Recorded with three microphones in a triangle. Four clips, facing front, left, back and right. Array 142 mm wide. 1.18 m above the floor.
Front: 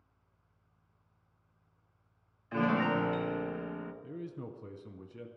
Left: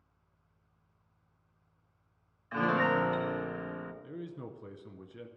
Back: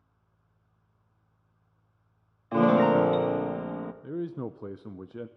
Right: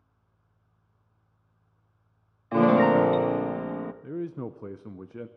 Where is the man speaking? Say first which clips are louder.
Right 9 dB, back 9 dB; 145° right, 0.5 m.